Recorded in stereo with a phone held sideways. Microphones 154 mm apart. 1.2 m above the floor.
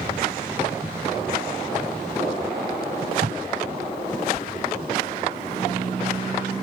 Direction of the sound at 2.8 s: 75° right (ahead or behind).